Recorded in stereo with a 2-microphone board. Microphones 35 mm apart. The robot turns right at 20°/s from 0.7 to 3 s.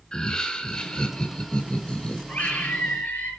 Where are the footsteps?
No footsteps in this recording.